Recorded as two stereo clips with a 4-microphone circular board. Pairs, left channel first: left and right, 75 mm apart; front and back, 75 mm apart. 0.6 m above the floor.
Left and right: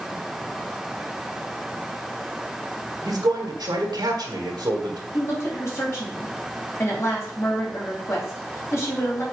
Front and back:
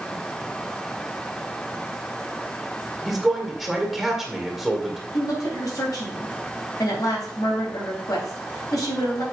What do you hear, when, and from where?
3.0 s a man speaking: 95° right, 1.9 m
5.1 s a woman speaking: 35° left, 4 m